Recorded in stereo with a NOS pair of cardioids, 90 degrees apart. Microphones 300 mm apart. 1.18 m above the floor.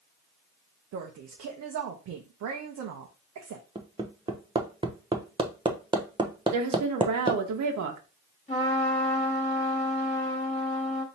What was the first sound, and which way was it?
A woman speaking, 65° right.